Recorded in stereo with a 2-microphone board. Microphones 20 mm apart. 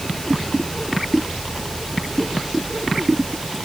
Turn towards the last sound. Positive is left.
No sound to turn to.